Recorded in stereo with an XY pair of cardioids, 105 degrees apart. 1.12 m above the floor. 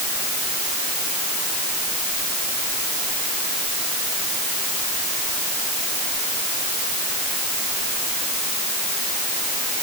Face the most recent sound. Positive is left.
No sound to turn to.